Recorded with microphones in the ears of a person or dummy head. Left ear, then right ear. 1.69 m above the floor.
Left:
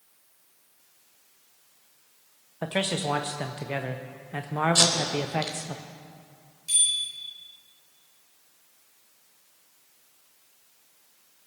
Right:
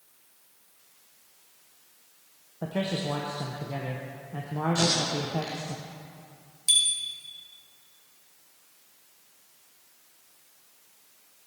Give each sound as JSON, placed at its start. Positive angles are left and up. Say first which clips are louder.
{"t": 2.6, "sound": "a man speaking", "louder": "left 3 dB", "side_deg": 35, "distance_m": 0.7}
{"t": 4.8, "sound": "tape being pulled", "louder": "left 2 dB", "side_deg": 35, "distance_m": 3.5}
{"t": 6.7, "sound": "a bicycle bell", "louder": "right 4 dB", "side_deg": -30, "distance_m": 5.5}